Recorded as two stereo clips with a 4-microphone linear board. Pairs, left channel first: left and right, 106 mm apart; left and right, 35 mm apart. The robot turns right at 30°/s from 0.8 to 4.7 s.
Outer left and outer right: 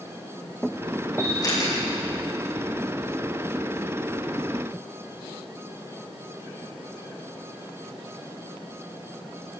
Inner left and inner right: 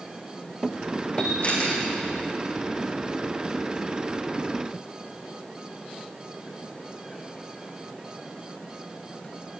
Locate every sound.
1.2 s a camera shutter: 30° left (ahead or behind), 9.5 m; by 1.8 s 50° left (ahead or behind), 9.5 m